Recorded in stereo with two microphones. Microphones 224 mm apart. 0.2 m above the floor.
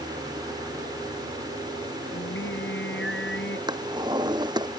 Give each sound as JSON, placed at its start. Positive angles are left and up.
{"t": 2.1, "sound": "singing", "side_deg": 60}
{"t": 3.7, "sound": "a drawer", "side_deg": -20}